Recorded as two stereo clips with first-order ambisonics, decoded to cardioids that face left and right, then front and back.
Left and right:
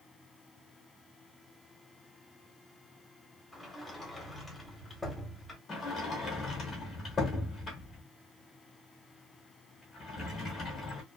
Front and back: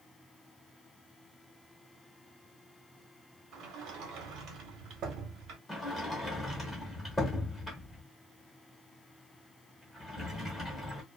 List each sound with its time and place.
3.5 s a sliding door: 175° left, 0.8 m
5.7 s a sliding door: 70° left, 0.9 m